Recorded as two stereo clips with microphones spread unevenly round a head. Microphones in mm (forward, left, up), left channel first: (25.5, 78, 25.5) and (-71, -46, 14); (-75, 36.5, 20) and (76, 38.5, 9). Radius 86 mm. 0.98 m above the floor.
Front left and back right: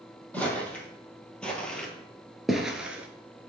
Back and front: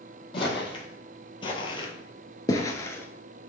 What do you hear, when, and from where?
0.3 s footsteps: 130° left, 2 m; by 3.5 s 150° right, 0.9 m